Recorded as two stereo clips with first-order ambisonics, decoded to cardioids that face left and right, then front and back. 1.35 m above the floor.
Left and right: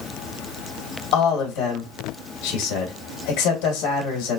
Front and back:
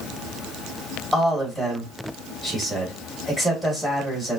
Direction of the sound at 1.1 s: 85° left.